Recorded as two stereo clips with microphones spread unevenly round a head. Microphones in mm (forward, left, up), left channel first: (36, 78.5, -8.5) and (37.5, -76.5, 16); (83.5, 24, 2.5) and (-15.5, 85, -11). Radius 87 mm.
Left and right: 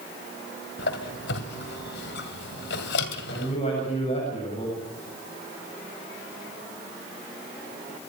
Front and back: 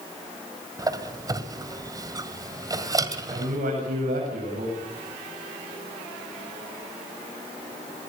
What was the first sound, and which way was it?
A squeak, 90° left.